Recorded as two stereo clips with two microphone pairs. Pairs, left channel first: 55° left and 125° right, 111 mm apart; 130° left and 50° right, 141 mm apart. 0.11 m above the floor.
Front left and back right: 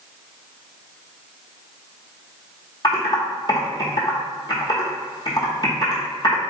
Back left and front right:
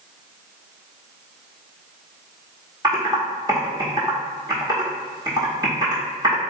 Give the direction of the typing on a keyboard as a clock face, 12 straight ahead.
12 o'clock.